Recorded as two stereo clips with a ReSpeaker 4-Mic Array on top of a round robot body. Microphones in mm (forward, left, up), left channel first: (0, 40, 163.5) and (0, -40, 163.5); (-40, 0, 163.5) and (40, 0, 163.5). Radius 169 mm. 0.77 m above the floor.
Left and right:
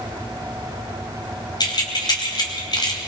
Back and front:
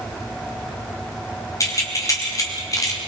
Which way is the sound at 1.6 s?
130° left.